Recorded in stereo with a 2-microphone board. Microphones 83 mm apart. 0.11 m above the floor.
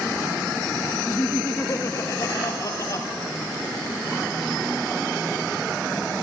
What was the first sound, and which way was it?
Laughter, 25° left (ahead or behind).